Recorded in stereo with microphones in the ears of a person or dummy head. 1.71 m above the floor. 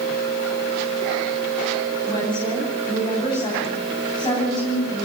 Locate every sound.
2.1 s a woman speaking: 25° left (ahead or behind), 9.5 m